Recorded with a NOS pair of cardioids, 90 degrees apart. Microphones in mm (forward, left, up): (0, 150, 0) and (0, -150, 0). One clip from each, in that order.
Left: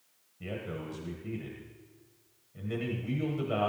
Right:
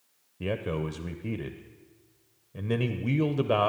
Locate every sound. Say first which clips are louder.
0.4 s a man speaking: right 8 dB; 60° right, 0.8 m